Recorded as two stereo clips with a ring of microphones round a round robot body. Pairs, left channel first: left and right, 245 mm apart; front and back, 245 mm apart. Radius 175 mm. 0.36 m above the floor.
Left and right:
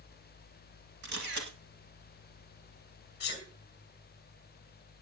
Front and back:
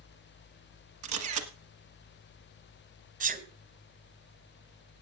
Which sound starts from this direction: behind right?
A camera shutter, at 1.0 s.